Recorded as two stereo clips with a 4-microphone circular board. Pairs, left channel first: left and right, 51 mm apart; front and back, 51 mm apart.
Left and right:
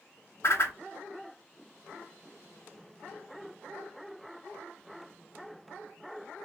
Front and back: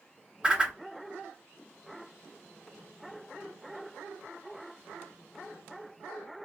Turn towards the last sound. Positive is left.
turn(degrees=110)